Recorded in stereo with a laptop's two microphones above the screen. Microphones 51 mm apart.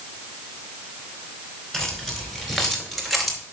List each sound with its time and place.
1.7 s keys jangling: 10° left (ahead or behind), 4 m; by 3.4 s 5° left (ahead or behind), 3 m